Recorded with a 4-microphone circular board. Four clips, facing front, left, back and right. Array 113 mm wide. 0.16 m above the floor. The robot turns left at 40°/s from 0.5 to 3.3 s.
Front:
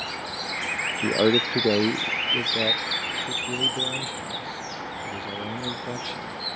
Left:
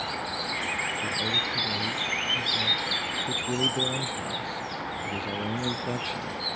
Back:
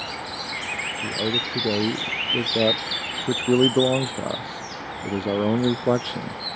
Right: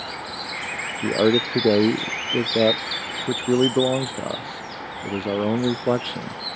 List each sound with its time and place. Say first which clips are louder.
1.0 s a man speaking: right 12 dB, front 7 dB; 50° right; by 6.4 s 140° right